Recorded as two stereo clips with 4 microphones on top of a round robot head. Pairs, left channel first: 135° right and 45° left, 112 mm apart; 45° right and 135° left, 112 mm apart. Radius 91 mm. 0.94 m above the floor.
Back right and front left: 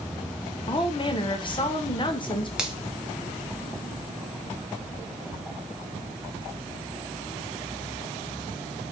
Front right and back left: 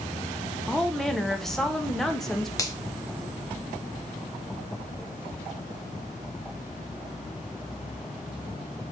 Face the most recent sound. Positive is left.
turn(degrees=-35)